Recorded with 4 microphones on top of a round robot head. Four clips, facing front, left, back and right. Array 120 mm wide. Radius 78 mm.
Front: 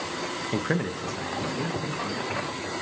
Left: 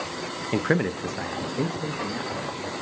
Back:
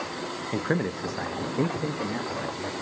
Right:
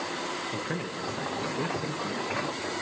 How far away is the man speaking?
About 0.9 m.